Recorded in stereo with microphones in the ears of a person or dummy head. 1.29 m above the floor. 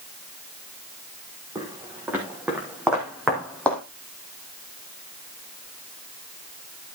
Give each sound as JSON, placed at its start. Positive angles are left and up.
{"t": 1.6, "sound": "footsteps", "side_deg": -15, "distance_m": 5.0}